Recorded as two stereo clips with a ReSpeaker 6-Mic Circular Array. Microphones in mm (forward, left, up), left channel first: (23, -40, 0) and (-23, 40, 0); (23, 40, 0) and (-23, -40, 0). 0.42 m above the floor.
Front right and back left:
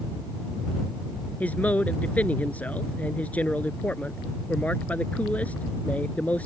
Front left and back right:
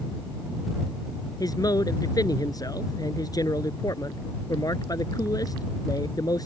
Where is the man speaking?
15° left.